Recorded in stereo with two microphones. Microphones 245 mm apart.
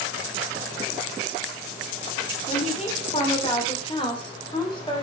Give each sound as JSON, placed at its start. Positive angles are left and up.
{"t": 2.5, "sound": "a woman speaking", "side_deg": 30, "distance_m": 2.5}